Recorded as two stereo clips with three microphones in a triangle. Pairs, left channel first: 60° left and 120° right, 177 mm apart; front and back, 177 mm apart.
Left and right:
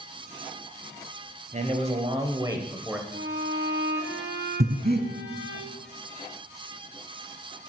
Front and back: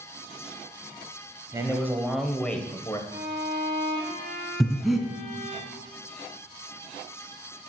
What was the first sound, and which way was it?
A man speaking, 120° right.